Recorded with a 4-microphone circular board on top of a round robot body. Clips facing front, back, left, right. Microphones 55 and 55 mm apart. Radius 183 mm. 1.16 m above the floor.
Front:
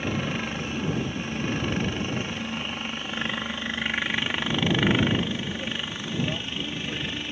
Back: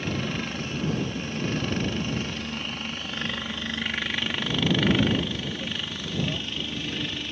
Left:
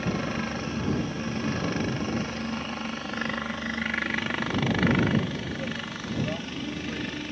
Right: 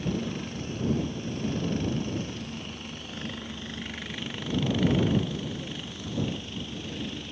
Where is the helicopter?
70° left.